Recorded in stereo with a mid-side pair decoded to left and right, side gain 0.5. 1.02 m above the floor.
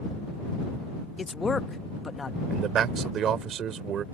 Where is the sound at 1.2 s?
25° left.